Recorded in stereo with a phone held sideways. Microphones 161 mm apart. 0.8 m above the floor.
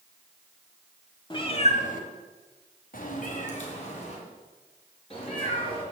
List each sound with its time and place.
1.3 s a cat meowing: 30° left (ahead or behind), 1.7 m; by 5.8 s 35° left (ahead or behind), 5.5 m